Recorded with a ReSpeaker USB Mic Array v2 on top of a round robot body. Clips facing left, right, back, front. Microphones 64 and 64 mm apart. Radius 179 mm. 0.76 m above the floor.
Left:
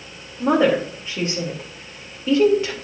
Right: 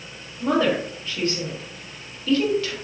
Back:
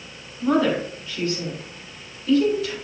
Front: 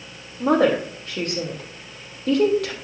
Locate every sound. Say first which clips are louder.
0.4 s a woman speaking: left 4 dB, front 2 dB; 25° left, 3 m